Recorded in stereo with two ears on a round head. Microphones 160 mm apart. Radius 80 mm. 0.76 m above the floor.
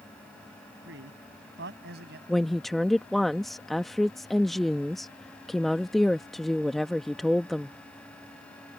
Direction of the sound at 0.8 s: 70° right (ahead or behind).